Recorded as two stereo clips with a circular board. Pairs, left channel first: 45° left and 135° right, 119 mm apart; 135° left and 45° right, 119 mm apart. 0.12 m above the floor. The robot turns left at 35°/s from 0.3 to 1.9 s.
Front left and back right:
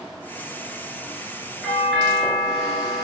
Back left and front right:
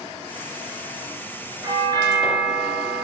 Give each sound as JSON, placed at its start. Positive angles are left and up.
{"t": 1.6, "sound": "a doorbell", "azimuth_deg": -40, "distance_m": 2.5}